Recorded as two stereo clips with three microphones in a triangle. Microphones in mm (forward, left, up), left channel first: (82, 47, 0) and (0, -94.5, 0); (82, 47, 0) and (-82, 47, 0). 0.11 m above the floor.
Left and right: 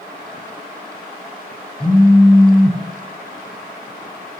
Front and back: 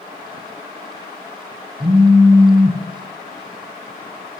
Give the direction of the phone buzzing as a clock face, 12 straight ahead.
7 o'clock.